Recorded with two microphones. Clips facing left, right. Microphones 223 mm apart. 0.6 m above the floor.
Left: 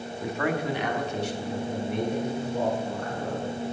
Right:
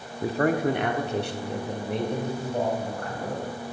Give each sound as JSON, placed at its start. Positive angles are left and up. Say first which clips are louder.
{"t": 0.2, "sound": "a man speaking", "louder": "right 5 dB", "side_deg": -25, "distance_m": 0.6}